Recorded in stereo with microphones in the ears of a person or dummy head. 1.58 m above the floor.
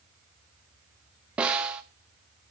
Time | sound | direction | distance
1.4 | a snare drum | 5° right (ahead or behind) | 0.6 m